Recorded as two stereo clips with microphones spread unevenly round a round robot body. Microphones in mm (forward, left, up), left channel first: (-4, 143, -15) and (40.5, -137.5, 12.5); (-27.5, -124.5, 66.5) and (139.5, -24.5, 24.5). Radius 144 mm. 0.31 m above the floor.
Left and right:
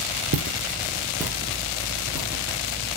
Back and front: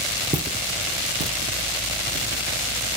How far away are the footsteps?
About 0.5 m.